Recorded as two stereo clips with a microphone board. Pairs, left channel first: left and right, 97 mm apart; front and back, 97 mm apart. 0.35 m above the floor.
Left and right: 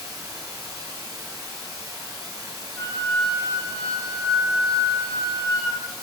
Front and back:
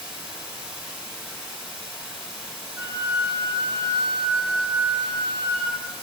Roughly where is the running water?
Right.